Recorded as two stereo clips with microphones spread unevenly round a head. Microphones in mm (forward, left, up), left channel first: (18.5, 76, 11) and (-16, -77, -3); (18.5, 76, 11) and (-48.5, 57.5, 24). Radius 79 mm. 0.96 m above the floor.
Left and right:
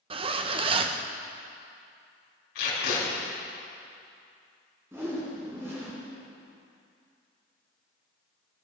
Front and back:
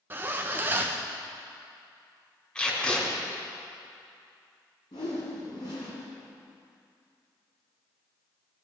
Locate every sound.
0.1 s a zipper: 100° right, 0.6 m
2.5 s tape being pulled: 90° left, 5 m
4.9 s a whoosh: 25° right, 3.5 m